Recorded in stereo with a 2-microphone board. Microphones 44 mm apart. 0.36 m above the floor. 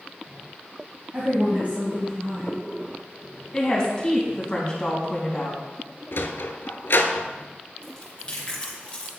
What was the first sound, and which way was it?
A woman speaking, 45° right (ahead or behind).